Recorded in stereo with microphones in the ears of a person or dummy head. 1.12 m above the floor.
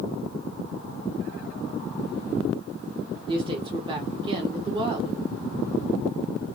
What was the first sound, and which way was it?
A woman speaking, 30° right (ahead or behind).